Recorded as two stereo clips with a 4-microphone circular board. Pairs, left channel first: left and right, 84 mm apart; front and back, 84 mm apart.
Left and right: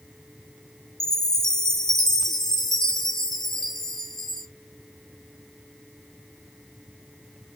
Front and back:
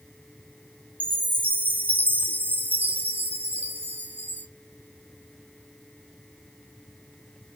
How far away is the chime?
About 0.5 m.